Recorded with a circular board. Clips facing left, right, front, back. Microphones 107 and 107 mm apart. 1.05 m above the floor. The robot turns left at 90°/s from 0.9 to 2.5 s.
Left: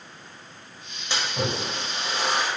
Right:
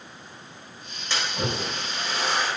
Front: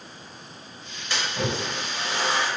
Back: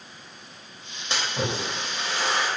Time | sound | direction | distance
1.1 | a splash | 145° left | 0.9 m